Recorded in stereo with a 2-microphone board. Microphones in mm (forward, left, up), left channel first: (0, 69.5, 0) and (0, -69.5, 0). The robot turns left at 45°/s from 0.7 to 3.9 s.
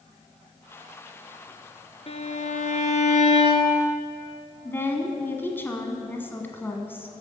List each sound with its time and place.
2.1 s a violin: 125° left, 1.0 m; by 3.9 s 40° left, 1.0 m
4.7 s a woman speaking: 15° left (ahead or behind), 1.3 m